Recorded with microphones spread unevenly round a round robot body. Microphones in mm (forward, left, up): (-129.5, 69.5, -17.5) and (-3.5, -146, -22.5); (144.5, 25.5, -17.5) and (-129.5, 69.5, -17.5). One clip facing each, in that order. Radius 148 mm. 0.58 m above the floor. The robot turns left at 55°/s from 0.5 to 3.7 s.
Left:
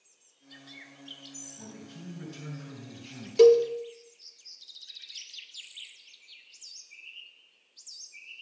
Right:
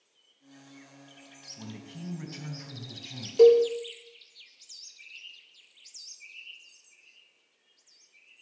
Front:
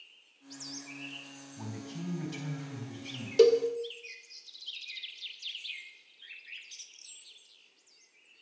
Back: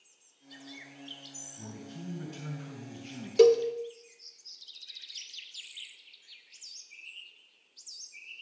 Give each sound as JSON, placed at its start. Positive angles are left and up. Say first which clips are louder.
{"t": 1.6, "sound": "a man speaking", "louder": "right 5 dB, front 3 dB", "azimuth_deg": 5, "distance_m": 3.5}
{"t": 3.4, "sound": "a cowbell", "louder": "even, back 2 dB", "azimuth_deg": 80, "distance_m": 0.6}